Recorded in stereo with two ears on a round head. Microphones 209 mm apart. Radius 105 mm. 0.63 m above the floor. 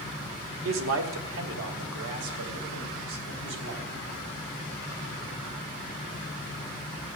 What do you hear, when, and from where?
0.7 s a man speaking: 60° right (ahead or behind), 1.6 m; by 4.2 s 75° right (ahead or behind), 4 m